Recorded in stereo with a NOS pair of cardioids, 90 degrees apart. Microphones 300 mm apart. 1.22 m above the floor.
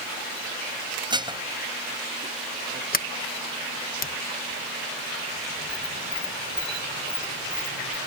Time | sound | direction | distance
1.1 | dishes clattering | 15° right | ?
2.9 | a sliding door | 30° left | ?